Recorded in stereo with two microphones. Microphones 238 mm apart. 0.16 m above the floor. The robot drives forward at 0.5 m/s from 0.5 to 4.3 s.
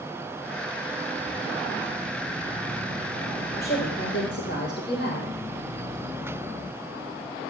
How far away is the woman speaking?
About 3 m.